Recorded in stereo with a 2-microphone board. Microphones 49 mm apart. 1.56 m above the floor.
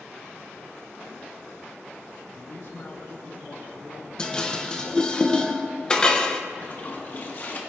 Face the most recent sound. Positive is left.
turn(degrees=45)  # may be behind; listen again after turning